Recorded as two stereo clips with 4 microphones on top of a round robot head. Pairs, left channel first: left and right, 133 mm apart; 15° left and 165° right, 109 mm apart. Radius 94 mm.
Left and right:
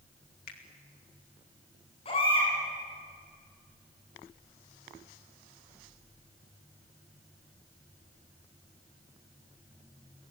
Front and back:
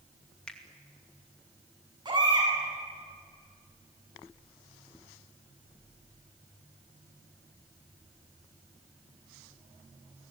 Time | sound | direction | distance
0.5 | a finger snap | 95° left | 2.5 m
2.0 | a baby crying | 145° left | 7.5 m